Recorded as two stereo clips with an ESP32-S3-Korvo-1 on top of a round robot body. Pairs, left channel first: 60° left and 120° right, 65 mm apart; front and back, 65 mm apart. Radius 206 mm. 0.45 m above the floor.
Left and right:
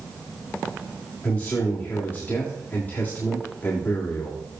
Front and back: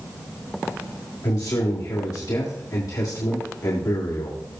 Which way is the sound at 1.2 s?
5° left.